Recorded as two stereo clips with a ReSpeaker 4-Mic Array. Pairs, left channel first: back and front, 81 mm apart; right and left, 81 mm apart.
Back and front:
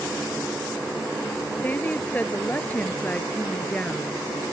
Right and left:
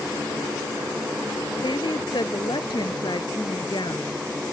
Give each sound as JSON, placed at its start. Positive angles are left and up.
{"t": 1.6, "sound": "a woman speaking", "azimuth_deg": -110}